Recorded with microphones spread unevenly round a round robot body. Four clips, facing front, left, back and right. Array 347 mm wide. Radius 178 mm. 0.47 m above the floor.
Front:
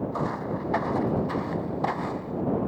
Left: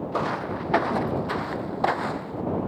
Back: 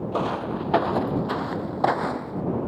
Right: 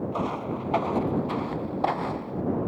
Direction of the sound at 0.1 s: 150° left.